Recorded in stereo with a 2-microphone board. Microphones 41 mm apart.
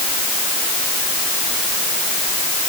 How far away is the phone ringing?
No phone ringing in this recording.